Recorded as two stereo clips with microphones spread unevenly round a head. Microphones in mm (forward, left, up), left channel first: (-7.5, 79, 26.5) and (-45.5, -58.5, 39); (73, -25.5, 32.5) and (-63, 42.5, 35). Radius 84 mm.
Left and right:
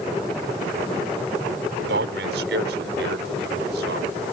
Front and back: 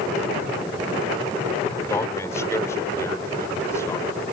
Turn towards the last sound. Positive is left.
turn(degrees=-100)